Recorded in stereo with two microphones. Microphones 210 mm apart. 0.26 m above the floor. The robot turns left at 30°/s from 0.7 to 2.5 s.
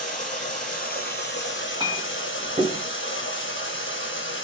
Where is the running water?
140° left, 1.0 m; by 4.4 s 85° left, 1.0 m.